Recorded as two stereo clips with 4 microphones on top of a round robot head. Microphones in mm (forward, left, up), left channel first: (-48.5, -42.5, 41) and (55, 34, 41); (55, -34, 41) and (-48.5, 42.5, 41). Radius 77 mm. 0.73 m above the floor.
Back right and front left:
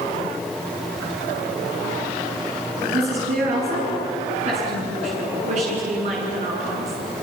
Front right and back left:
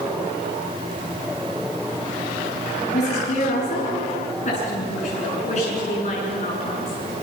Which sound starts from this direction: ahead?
A woman speaking, at 2.9 s.